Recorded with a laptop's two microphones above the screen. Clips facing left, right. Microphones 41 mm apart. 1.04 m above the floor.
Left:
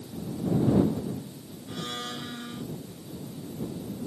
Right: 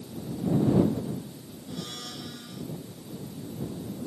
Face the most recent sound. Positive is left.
turn(degrees=30)  # may be behind; listen again after turning